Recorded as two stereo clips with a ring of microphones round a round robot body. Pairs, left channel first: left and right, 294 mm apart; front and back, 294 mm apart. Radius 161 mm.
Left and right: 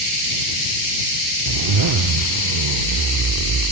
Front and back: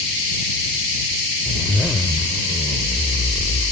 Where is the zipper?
85° right.